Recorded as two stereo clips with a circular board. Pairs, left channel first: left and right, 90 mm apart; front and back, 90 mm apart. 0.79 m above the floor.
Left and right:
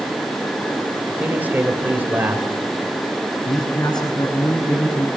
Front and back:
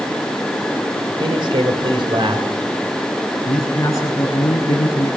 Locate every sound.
1.1 s a man speaking: 160° right, 3.5 m
3.5 s a man speaking: 55° left, 7.5 m